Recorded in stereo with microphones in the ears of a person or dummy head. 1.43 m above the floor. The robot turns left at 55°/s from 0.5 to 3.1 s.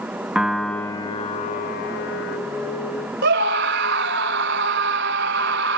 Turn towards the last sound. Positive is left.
turn(degrees=-60)  # may be behind; listen again after turning